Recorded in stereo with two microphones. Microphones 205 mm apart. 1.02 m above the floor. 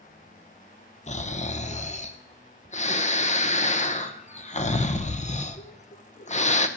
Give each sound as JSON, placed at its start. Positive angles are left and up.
{"t": 1.1, "sound": "snoring", "side_deg": 35, "distance_m": 0.6}